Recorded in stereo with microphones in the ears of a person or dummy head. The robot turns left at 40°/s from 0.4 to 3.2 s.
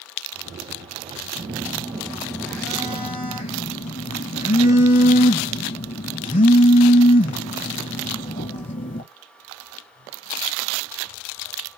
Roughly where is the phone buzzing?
Behind right.